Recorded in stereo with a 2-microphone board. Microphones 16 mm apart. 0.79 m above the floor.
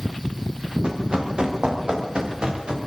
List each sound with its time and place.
0.8 s running footsteps: 70° right (ahead or behind), 8 m; by 2.8 s 85° right, 9 m